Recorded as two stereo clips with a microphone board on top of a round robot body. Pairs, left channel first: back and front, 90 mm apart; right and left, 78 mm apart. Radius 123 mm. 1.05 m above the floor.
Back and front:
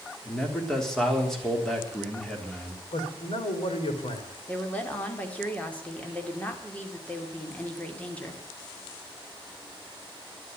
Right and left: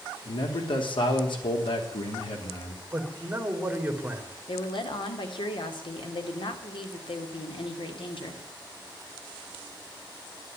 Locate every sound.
0.2 s a man speaking: 95° right, 3.5 m
2.9 s a man speaking: 165° left, 3.5 m
4.5 s a woman speaking: 105° right, 2.5 m